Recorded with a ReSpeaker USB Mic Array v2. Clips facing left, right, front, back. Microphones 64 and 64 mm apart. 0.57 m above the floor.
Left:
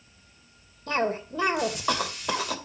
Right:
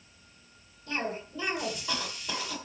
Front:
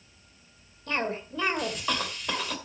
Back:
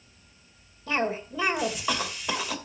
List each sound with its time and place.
0.9 s a cough: 100° left, 2 m